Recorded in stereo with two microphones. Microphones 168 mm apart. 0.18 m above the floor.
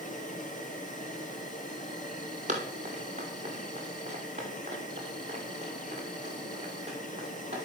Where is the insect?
50° left (ahead or behind), 3.5 m.